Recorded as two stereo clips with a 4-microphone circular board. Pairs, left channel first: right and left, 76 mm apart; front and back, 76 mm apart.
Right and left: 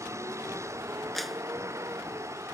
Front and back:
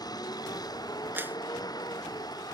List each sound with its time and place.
0.0 s a vehicle: 35° left
1.1 s a clap: 175° right